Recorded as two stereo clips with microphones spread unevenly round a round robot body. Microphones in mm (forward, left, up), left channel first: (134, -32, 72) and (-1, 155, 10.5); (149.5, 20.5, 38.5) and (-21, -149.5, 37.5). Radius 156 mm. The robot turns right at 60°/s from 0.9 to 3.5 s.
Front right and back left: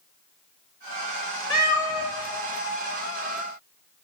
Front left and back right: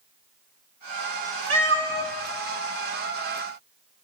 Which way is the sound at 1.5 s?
125° right.